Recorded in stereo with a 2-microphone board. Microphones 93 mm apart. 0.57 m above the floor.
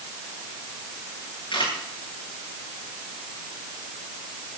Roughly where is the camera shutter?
Left.